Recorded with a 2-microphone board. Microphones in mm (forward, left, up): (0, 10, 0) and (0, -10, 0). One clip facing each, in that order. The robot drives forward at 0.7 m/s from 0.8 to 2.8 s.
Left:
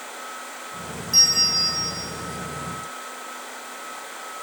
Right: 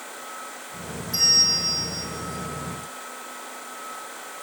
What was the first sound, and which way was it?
A bell, 50° left (ahead or behind).